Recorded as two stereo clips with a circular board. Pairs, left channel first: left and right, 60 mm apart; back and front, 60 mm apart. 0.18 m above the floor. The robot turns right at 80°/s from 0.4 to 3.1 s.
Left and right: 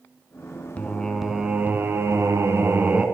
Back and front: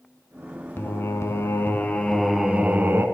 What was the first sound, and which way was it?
Singing, 145° left.